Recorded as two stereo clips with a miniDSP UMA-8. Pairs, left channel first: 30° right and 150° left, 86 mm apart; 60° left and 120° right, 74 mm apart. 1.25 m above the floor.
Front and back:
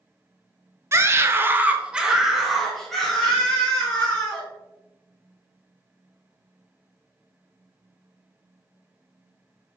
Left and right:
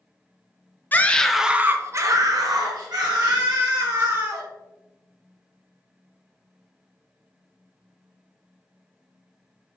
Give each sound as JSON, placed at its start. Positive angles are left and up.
{"t": 0.9, "sound": "a scream", "azimuth_deg": 110, "distance_m": 0.5}